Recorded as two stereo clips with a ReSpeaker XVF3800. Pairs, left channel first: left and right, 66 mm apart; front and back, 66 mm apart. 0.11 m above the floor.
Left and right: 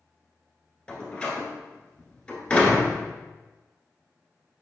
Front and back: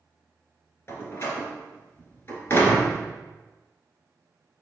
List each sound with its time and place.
0.9 s a door slam: 30° left, 1.4 m